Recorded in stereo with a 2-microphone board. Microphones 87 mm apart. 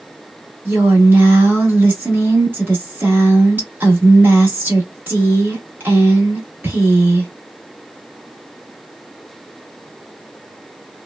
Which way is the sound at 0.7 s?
20° right (ahead or behind).